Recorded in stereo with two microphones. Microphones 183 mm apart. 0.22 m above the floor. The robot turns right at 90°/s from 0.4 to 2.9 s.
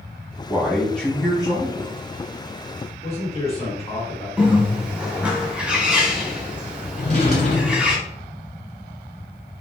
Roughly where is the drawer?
Left.